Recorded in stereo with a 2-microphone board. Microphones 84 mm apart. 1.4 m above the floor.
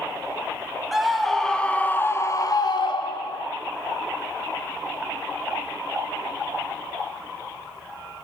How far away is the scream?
About 1.7 m.